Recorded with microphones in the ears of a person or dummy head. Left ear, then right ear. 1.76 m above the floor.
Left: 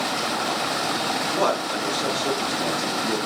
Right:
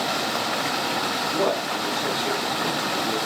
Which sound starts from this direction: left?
A man speaking, at 1.3 s.